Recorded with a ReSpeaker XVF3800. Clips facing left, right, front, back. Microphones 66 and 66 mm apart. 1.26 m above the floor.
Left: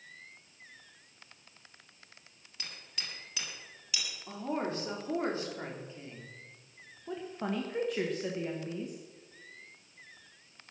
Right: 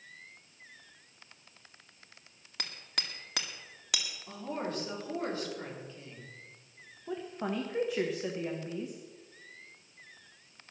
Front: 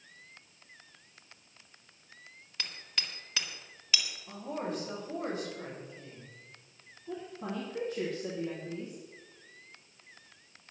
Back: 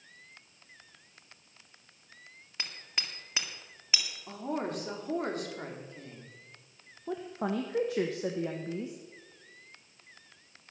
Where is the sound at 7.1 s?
175° right, 1.3 m.